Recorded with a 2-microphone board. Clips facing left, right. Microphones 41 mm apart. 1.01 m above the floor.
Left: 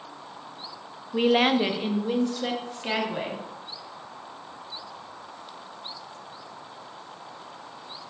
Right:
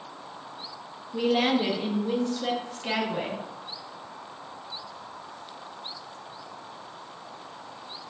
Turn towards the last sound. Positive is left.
turn(degrees=10)  # may be behind; listen again after turning